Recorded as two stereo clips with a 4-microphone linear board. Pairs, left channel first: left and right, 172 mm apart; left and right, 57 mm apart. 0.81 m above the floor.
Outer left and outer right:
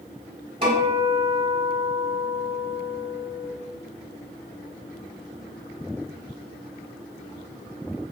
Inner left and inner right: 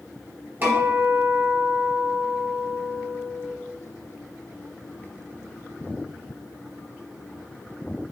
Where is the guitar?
35° right (ahead or behind), 1.2 m.